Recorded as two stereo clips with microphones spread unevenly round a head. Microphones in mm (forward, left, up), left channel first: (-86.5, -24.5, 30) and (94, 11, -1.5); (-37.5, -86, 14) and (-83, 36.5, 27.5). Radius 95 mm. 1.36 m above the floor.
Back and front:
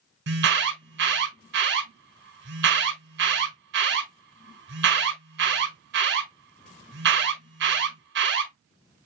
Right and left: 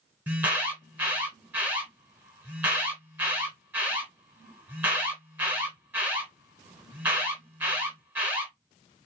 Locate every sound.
0.3 s an alarm: 30° left, 2 m